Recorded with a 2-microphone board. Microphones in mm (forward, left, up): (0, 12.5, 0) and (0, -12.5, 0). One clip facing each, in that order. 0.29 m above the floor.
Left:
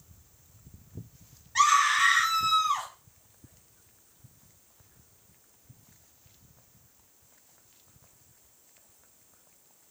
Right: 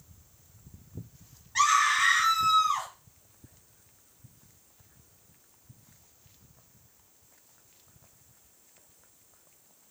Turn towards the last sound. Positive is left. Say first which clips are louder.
# left 1 dB
turn(degrees=-5)  # may be behind; listen again after turning